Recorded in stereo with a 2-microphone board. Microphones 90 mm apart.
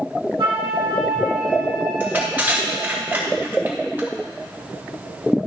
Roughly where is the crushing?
Right.